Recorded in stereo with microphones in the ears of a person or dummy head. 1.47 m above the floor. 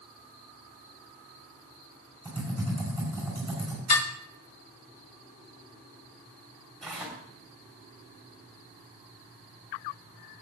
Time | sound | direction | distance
2.2 | typing on a keyboard | 10° left (ahead or behind) | 5 m
3.9 | dishes clattering | 45° left (ahead or behind) | 3.5 m
6.8 | tearing paper | centre (ahead or behind) | 3 m